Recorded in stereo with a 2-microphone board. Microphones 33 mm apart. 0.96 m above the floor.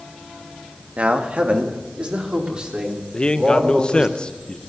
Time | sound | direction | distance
1.0 | a man speaking | 40° right (ahead or behind) | 1.5 m
3.1 | a man speaking | 30° left (ahead or behind) | 0.7 m